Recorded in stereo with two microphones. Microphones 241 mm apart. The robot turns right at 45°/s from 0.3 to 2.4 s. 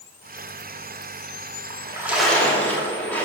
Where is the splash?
25° right, 2.5 m; by 3.2 s 5° left, 2.5 m.